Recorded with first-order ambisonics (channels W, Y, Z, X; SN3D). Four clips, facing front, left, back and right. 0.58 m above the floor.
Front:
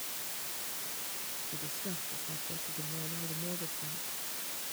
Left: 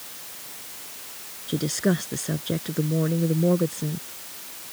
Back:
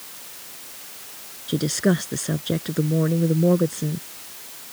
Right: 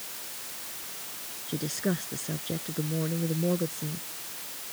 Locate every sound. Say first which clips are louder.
1.5 s a woman speaking: left 7 dB, back 23 dB; 160° left